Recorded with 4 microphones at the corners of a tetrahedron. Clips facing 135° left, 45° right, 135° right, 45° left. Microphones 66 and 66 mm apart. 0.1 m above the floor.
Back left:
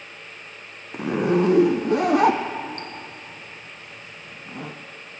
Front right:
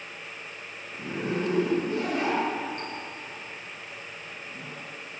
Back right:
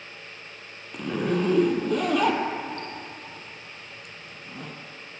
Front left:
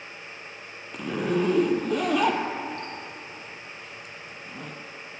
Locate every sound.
0.9 s a zipper: 135° left, 1.2 m